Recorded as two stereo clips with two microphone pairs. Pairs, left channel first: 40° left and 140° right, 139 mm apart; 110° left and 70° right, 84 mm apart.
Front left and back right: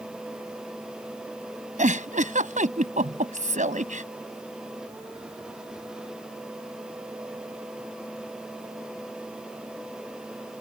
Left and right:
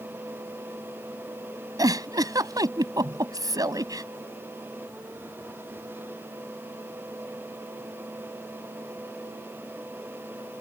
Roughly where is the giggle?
Right.